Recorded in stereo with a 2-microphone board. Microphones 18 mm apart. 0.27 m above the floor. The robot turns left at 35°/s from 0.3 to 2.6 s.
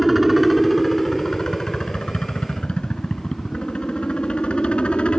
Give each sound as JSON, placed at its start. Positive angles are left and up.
{"t": 0.0, "sound": "a helicopter", "azimuth_deg": -175}